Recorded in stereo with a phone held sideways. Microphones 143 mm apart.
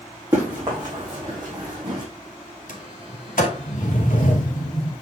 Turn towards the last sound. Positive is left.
turn(degrees=80)